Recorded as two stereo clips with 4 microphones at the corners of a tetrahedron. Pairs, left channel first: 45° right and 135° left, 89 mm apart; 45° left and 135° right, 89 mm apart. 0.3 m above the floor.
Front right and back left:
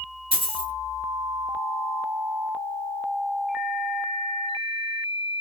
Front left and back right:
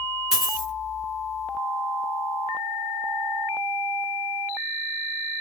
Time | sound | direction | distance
0.3 | a dropped coin | 140° left | 1.4 m